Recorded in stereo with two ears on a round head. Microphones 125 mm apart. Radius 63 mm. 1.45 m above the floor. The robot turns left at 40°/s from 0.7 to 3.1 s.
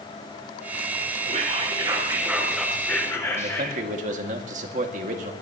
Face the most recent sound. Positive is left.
turn(degrees=-60)  # may be behind; listen again after turning